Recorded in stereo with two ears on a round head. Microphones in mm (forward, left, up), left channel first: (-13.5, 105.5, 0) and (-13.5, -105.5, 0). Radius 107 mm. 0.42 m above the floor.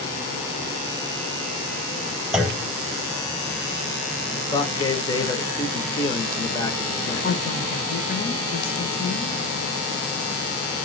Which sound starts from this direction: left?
A woman speaking, at 7.2 s.